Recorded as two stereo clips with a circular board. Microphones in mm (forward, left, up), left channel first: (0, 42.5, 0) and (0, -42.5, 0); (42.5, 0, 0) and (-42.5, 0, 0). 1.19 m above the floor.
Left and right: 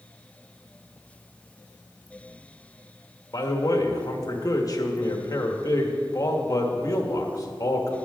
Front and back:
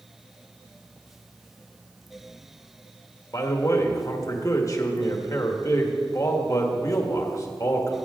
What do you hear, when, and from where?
3.3 s a man speaking: 45° left, 1.6 m